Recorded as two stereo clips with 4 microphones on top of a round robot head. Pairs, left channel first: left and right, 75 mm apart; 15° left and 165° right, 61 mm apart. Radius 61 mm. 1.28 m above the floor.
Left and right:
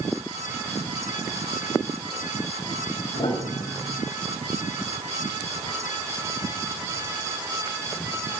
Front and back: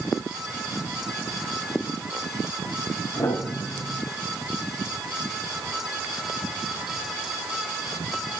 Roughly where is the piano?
Ahead left.